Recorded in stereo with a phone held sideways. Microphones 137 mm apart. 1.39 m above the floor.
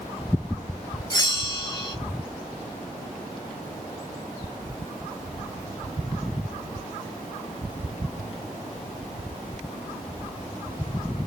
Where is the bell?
30° left (ahead or behind), 1.7 m.